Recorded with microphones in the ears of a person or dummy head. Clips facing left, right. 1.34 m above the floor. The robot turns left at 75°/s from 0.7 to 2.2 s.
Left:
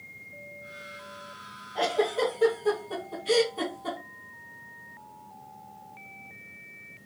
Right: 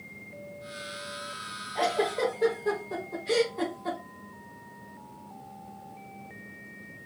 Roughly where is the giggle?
Centre.